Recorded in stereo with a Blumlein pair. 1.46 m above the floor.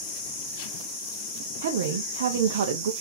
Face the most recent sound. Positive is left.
turn(degrees=-60)